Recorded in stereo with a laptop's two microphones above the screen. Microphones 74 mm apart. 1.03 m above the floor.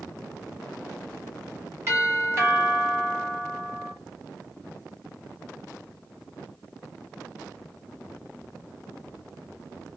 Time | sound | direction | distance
1.9 | a doorbell | 35° right (ahead or behind) | 1.3 m